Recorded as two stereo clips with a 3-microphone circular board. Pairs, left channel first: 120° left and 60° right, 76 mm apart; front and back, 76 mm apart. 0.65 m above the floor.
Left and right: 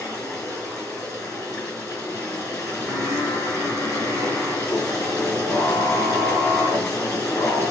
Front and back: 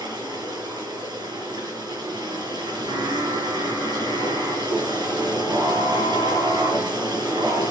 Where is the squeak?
I don't hear a squeak.